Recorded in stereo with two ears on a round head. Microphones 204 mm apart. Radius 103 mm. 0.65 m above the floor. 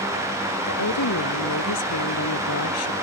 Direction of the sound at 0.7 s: 80° left.